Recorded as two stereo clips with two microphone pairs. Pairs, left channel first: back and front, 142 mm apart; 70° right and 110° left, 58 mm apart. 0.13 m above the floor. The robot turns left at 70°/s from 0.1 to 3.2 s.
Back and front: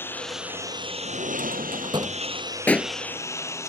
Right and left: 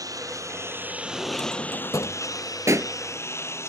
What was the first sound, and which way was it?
A lawn mower, 105° left.